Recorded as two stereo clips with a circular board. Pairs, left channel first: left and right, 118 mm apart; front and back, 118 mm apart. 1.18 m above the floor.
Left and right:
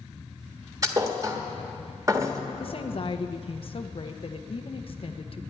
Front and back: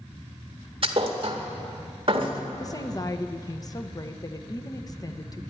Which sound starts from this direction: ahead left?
A woman speaking, at 2.6 s.